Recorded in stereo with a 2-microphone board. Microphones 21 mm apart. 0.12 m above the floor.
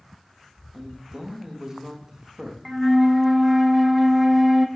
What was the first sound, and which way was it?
A man speaking, 25° right (ahead or behind).